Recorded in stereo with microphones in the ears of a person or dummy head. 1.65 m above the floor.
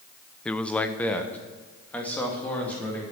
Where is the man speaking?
10° left (ahead or behind), 0.6 m.